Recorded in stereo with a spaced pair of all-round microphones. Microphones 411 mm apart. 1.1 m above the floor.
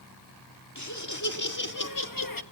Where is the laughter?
45° left (ahead or behind), 2.5 m; by 2.4 s 55° left (ahead or behind), 1.2 m.